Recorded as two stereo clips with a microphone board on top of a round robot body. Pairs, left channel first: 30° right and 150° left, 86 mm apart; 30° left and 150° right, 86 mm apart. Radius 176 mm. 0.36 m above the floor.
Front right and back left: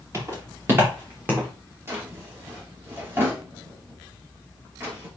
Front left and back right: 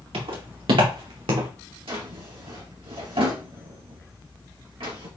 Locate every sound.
0.1 s footsteps: 150° right, 4.5 m; by 1.5 s 140° right, 3 m
1.9 s a drawer: 145° right, 3 m